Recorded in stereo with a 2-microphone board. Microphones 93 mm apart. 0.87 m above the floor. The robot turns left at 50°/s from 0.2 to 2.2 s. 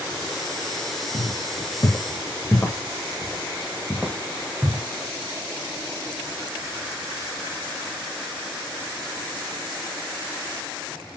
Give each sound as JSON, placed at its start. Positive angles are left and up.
{"t": 1.1, "sound": "footsteps", "side_deg": 55, "distance_m": 1.7}